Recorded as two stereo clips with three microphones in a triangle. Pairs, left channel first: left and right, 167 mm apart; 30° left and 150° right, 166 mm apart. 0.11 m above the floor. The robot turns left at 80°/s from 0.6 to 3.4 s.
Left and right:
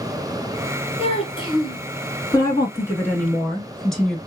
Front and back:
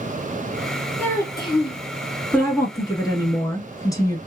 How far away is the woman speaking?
About 1.1 m.